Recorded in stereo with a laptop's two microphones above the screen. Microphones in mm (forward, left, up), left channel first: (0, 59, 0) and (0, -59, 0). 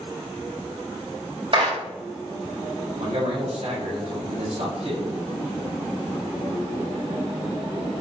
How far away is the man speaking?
About 7 m.